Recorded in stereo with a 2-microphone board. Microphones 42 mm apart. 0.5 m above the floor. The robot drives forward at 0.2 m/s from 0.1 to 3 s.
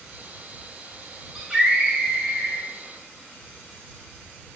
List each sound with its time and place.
1.4 s a scream: 10° right (ahead or behind), 3 m